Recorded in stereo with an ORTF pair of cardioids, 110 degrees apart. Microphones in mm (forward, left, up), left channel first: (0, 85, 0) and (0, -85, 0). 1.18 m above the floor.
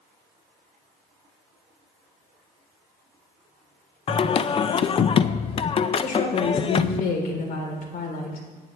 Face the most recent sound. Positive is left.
turn(degrees=60)